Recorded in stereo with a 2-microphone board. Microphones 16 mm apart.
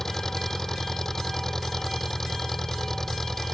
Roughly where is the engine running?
Left.